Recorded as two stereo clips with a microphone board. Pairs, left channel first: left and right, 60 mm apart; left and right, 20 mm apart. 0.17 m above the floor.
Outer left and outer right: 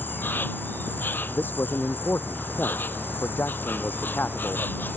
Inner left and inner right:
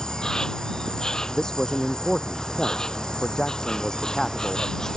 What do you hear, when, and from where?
0.0 s an insect: 35° left (ahead or behind)
1.3 s a man speaking: 35° left (ahead or behind)